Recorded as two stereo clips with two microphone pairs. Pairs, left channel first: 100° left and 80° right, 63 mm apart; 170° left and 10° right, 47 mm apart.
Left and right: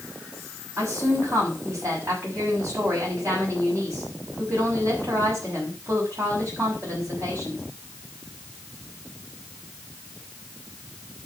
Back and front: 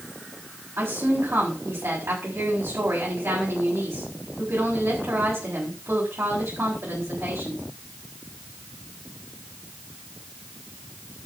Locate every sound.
0.8 s a woman speaking: 40° right, 6 m